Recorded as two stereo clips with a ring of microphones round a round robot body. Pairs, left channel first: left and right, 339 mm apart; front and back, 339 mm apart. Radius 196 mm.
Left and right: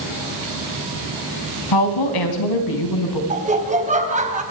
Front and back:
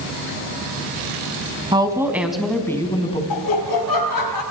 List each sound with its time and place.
1.7 s a woman speaking: 105° left, 3.5 m; by 3.2 s 75° left, 4 m
3.3 s laughter: 20° right, 3.5 m